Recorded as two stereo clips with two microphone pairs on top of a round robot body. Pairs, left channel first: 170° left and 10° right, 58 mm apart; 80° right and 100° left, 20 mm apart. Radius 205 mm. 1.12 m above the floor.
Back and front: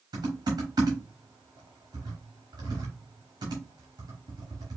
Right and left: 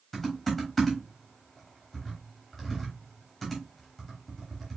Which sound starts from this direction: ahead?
Typing on a keyboard, at 0.1 s.